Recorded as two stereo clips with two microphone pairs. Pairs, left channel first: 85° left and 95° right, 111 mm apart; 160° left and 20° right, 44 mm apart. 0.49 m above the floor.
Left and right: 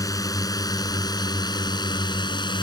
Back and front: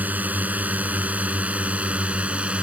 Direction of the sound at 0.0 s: 30° left.